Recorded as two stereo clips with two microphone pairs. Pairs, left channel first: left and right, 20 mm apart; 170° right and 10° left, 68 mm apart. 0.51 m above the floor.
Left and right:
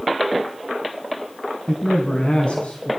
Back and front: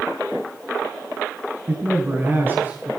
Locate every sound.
1.7 s a man speaking: 65° left, 4 m; by 2.9 s 75° left, 5 m